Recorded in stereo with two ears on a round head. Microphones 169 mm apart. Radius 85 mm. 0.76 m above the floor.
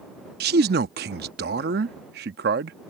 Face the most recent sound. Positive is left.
turn(degrees=-55)  # may be behind; listen again after turning